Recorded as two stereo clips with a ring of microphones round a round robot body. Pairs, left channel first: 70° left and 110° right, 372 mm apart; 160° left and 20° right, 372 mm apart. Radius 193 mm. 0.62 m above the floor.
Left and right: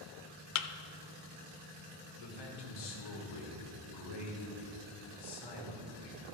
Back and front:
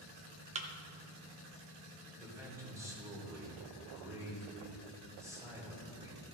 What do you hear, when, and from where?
0.6 s a thud: 50° left, 0.6 m
2.2 s a man speaking: 60° left, 2.5 m